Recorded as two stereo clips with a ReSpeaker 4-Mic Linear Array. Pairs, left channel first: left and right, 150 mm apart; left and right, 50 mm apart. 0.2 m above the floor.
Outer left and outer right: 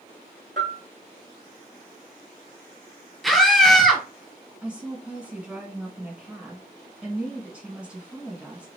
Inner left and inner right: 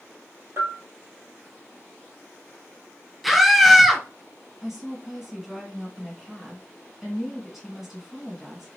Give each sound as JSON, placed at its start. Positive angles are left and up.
{"t": 0.6, "sound": "a bell", "side_deg": -55, "distance_m": 0.7}
{"t": 3.2, "sound": "a scream", "side_deg": 0, "distance_m": 1.3}
{"t": 4.6, "sound": "a woman speaking", "side_deg": -10, "distance_m": 1.5}